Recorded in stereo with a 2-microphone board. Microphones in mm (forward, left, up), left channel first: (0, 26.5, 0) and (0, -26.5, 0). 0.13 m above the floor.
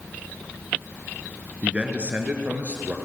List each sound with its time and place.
1.6 s a man speaking: 20° right (ahead or behind), 1.7 m; by 3.0 s 30° right (ahead or behind), 2.5 m